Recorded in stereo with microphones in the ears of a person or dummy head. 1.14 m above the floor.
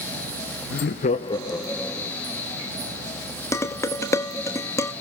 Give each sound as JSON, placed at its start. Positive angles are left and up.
{"t": 0.7, "sound": "laughter", "side_deg": 60, "distance_m": 0.6}
{"t": 3.5, "sound": "dishes clattering", "side_deg": 15, "distance_m": 0.9}